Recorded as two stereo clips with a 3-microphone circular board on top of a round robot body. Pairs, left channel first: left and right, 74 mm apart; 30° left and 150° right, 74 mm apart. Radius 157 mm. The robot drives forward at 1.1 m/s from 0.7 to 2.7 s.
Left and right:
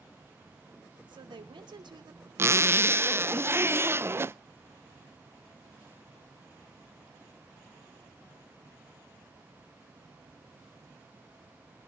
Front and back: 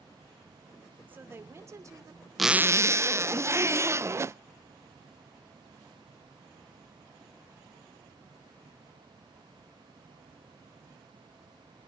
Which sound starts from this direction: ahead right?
A zipper, at 2.4 s.